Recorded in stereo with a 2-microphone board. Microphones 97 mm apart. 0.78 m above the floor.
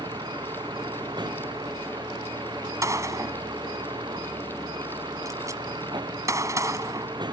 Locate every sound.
0.0 s a vehicle: 55° right (ahead or behind)
2.8 s a gunshot: 35° right (ahead or behind)